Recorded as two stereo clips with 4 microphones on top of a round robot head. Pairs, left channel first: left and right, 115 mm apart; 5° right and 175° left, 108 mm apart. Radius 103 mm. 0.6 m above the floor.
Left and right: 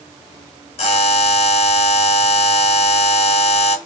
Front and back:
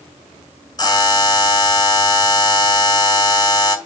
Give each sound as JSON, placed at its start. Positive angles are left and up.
{"t": 0.8, "sound": "a buzzer", "azimuth_deg": 50, "distance_m": 6.5}